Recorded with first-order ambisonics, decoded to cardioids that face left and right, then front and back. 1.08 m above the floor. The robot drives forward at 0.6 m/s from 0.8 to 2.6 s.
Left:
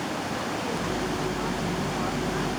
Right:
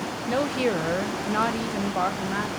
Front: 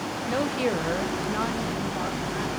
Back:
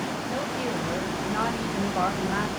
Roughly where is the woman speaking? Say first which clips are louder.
Right 5 dB, front 6 dB; ahead right.